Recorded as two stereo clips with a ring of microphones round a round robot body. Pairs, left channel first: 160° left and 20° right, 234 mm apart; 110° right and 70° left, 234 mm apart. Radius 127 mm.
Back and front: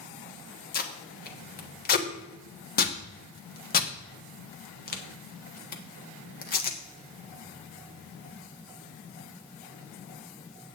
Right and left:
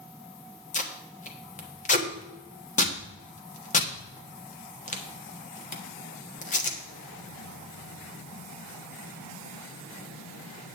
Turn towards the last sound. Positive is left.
turn(degrees=-160)